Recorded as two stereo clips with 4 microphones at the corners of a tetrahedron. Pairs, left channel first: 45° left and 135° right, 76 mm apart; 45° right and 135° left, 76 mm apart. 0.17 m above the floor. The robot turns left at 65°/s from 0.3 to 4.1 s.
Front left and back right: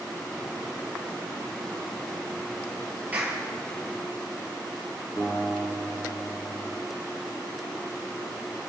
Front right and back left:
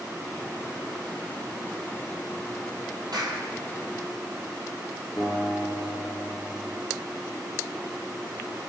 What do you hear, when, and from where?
3.1 s a clap: 155° left, 3.5 m; by 3.4 s 135° left, 3.5 m
5.2 s a guitar: straight ahead, 9 m